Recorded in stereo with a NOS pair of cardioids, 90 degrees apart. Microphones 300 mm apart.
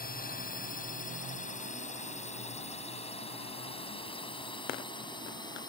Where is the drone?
30° left; by 5.7 s 15° left.